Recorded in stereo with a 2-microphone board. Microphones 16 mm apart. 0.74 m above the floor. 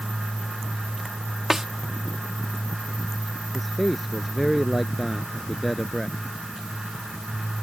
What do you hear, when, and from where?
1.5 s a snare drum: 25° right (ahead or behind)
3.5 s a man speaking: 5° left (ahead or behind)